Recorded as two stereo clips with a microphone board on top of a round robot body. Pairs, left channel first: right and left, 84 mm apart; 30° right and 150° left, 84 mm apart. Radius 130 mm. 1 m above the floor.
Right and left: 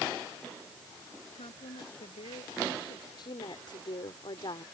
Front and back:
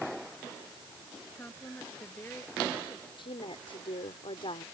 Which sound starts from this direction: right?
A woman speaking, at 1.4 s.